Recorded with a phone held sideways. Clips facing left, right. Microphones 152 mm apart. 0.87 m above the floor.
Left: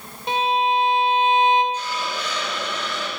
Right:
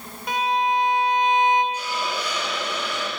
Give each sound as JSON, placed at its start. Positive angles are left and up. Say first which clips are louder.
{"t": 0.3, "sound": "a violin", "louder": "left 2 dB", "side_deg": 25, "distance_m": 0.6}
{"t": 1.7, "sound": "a hiss", "louder": "even", "side_deg": -15, "distance_m": 1.8}